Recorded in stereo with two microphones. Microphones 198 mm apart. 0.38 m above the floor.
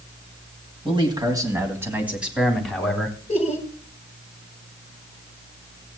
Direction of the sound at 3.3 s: 30° left (ahead or behind).